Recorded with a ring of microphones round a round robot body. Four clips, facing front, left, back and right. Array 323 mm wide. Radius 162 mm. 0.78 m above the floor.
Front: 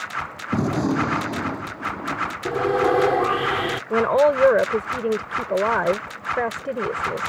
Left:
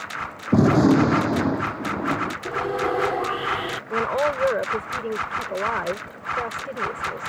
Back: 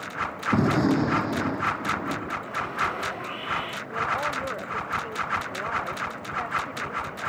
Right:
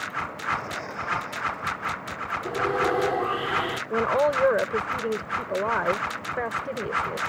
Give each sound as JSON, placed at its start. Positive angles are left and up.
{"t": 0.5, "sound": "a gunshot", "azimuth_deg": 95}
{"t": 2.5, "sound": "sawing", "azimuth_deg": 0}
{"t": 3.9, "sound": "a woman speaking", "azimuth_deg": -5}